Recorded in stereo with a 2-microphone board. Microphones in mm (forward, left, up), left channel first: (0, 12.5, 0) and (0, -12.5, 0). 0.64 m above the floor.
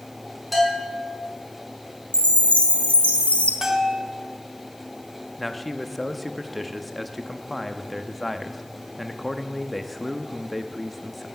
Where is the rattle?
I don't hear a rattle.